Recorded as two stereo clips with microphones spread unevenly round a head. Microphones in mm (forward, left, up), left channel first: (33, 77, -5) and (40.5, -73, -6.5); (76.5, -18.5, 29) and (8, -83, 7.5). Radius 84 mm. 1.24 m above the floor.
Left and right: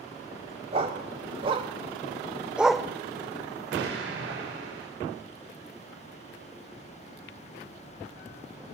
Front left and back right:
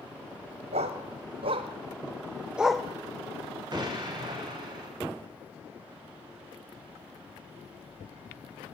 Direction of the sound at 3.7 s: 95° right.